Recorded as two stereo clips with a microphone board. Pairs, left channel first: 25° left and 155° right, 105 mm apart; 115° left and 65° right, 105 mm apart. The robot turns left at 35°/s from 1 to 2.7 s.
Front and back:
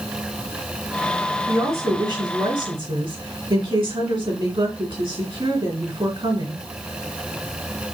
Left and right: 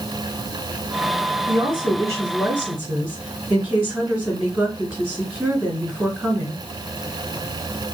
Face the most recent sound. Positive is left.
turn(degrees=-150)